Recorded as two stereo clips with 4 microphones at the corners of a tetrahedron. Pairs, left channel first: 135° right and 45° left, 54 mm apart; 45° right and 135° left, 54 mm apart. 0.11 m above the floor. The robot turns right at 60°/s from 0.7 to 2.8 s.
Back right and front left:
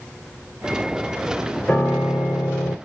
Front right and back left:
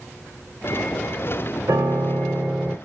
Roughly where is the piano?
Behind left.